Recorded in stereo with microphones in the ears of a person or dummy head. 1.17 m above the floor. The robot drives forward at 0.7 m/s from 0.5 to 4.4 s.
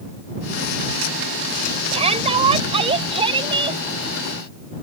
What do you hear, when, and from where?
1.9 s a shout: 35° right (ahead or behind); by 3.8 s 25° right (ahead or behind)